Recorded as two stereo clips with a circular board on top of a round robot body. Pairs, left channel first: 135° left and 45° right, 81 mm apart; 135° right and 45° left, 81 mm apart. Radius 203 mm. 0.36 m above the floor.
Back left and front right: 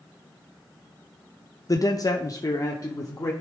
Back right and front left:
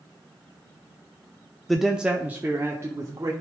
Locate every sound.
1.7 s a man speaking: 140° left, 0.9 m; by 3.3 s 90° left, 1.5 m